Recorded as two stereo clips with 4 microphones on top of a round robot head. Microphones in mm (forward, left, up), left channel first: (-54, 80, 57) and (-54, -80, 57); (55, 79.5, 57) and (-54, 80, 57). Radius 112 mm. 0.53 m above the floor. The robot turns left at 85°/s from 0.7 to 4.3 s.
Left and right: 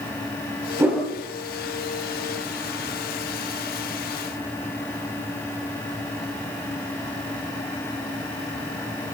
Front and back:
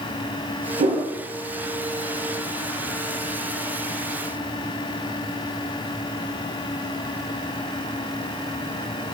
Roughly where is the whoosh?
Behind.